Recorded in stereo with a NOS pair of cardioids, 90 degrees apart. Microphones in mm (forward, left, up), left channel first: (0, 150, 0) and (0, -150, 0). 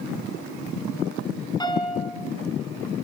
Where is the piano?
15° left, 5 m.